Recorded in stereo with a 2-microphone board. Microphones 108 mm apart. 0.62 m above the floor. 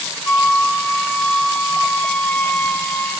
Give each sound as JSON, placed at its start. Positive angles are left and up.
{"t": 0.3, "sound": "a flute", "side_deg": 15, "distance_m": 1.7}